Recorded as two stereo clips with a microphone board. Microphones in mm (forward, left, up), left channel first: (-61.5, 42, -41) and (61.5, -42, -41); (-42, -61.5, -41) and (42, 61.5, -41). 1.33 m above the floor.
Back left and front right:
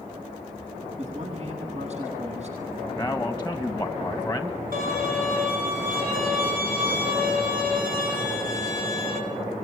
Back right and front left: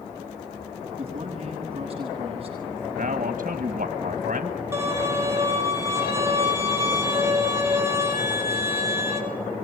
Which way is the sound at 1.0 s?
5° left.